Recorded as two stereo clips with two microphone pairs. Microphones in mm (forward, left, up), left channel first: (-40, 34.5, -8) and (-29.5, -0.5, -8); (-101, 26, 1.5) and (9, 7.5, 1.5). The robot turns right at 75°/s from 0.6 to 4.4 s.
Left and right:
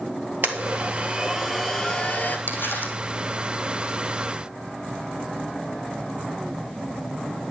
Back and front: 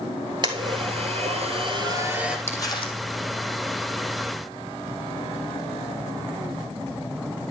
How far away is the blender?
About 1.6 m.